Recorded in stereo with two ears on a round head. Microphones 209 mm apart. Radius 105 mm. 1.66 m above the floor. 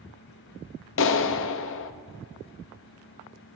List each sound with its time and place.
1.0 s a clap: 55° left (ahead or behind), 0.6 m